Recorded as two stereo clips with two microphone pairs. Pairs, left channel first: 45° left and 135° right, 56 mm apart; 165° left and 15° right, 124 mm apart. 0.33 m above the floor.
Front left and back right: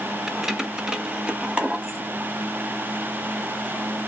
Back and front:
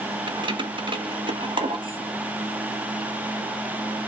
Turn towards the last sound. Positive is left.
turn(degrees=-65)